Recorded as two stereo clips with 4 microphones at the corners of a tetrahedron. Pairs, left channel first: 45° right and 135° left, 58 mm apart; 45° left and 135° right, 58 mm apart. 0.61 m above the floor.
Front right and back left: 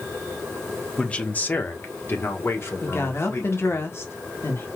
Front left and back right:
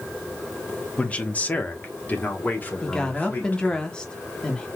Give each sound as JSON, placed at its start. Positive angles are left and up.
{"t": 1.0, "sound": "a man speaking", "azimuth_deg": 5, "distance_m": 1.0}
{"t": 2.8, "sound": "a woman speaking", "azimuth_deg": -25, "distance_m": 1.3}